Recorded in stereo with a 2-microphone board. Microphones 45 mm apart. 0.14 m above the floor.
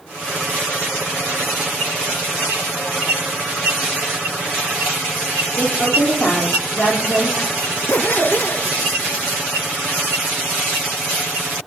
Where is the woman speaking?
65° left (ahead or behind), 5.5 m.